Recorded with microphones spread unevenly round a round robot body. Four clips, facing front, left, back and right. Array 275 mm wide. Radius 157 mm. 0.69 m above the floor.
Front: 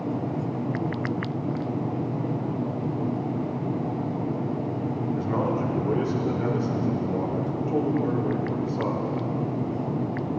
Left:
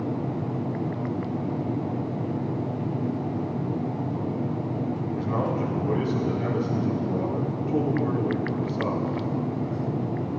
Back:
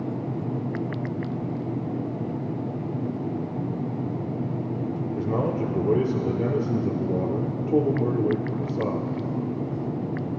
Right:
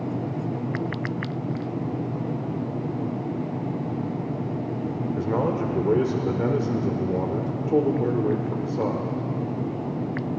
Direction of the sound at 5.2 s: 140° right.